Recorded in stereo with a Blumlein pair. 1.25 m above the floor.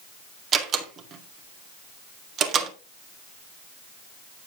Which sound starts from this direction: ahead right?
A door slam, at 0.5 s.